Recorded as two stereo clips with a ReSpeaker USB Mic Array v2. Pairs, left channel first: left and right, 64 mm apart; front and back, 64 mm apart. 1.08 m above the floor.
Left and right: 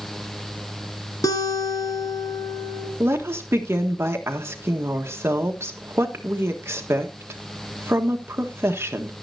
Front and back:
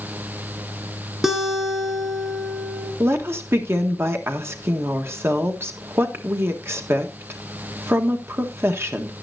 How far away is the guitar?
About 2.5 m.